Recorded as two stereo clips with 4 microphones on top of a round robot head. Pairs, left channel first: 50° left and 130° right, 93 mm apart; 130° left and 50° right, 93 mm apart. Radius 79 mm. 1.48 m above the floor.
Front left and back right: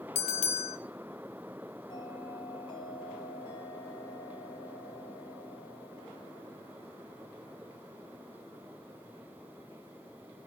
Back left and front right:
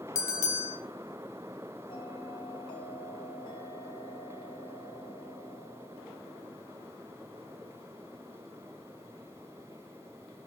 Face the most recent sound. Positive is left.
turn(degrees=90)